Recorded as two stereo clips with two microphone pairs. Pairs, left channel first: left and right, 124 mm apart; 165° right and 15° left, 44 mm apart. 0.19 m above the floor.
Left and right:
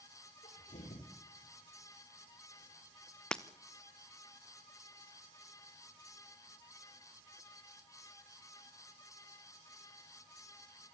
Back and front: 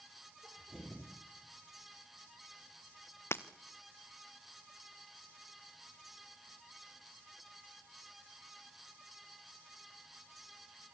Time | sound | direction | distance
0.4 | a sneeze | 90° left | 5 m
3.3 | breaking glass | 175° left | 1.3 m